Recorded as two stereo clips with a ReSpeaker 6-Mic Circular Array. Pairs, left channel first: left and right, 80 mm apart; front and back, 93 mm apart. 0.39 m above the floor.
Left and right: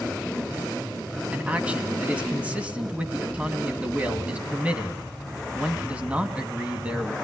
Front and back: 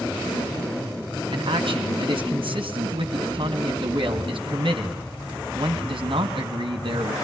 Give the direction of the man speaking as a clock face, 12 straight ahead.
5 o'clock.